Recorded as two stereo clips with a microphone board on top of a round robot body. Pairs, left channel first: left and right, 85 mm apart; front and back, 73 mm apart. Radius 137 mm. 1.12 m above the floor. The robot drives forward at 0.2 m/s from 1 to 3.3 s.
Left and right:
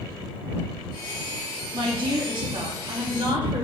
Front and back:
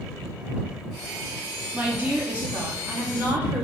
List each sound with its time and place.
1.7 s a woman speaking: 105° right, 2.5 m; by 3.6 s 110° right, 3 m